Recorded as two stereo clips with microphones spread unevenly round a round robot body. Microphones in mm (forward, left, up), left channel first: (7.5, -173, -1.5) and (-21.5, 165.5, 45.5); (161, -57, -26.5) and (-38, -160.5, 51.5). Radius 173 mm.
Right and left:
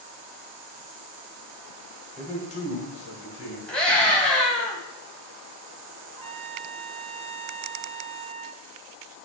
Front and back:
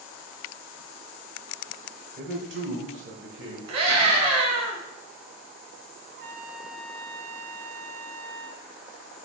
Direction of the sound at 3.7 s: 165° right.